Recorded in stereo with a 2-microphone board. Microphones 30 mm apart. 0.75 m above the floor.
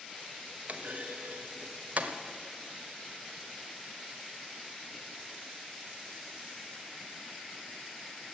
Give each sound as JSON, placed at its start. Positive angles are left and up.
{"t": 0.7, "sound": "a clunk", "side_deg": -55, "distance_m": 1.1}